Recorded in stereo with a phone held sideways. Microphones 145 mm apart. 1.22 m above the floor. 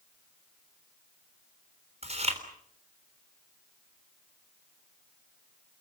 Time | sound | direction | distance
2.0 | chewing | 50° right (ahead or behind) | 3.5 m